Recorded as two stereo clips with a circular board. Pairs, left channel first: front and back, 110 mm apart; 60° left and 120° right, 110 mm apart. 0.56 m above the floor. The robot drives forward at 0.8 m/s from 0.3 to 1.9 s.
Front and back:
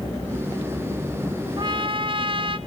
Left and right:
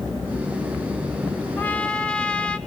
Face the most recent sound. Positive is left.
turn(degrees=140)